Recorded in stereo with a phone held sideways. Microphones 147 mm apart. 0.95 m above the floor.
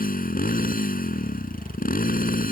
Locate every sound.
0.0 s a motorcycle: 80° left